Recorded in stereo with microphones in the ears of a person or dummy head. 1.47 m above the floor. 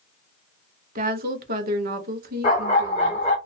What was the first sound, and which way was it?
A woman speaking, 50° right (ahead or behind).